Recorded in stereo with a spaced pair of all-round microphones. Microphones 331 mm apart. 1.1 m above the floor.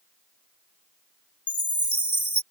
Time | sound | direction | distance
1.5 | a chime | 60° left (ahead or behind) | ?